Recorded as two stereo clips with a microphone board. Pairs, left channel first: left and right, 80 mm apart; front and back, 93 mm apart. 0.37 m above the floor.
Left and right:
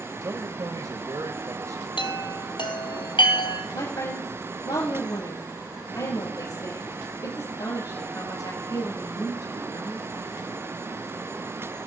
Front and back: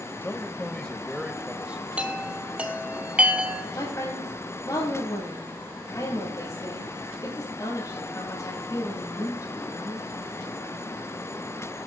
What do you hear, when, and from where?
0.2 s a man speaking: 60° right, 1.5 m; by 1.9 s 110° right, 1.4 m
2.0 s a chime: 105° left, 1.5 m
3.7 s a woman speaking: 50° left, 8 m